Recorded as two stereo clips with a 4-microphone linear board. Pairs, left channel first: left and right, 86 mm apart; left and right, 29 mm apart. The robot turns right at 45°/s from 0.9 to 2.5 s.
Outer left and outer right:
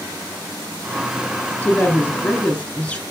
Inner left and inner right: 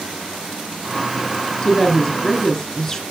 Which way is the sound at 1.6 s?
20° left (ahead or behind).